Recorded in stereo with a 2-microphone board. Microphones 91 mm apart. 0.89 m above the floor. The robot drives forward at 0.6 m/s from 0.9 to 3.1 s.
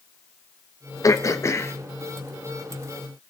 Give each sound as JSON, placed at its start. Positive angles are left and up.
{"t": 1.0, "sound": "throat clearing", "side_deg": 40, "distance_m": 0.8}